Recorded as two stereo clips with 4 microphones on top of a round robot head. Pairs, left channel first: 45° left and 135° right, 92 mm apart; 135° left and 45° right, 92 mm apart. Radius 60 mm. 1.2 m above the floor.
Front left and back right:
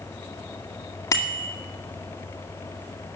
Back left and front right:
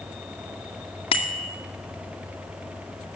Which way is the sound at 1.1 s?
105° left.